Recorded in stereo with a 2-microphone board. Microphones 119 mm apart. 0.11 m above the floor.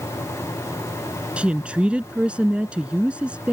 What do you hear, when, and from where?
1.4 s a woman speaking: 10° right (ahead or behind)